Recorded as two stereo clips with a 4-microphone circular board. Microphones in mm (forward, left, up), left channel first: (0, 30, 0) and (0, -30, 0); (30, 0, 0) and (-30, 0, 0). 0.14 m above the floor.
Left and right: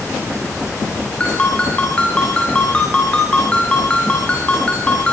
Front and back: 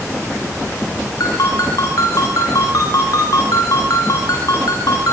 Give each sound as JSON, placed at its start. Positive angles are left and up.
{"t": 1.2, "sound": "a ringtone", "azimuth_deg": 15, "distance_m": 7.5}